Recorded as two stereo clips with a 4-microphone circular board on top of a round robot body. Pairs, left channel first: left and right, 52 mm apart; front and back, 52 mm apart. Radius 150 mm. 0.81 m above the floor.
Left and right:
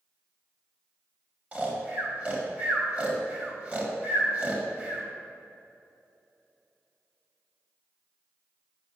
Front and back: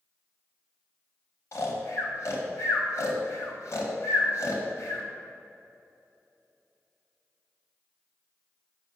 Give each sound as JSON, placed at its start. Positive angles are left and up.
{"t": 1.5, "sound": "snoring", "azimuth_deg": -30, "distance_m": 1.7}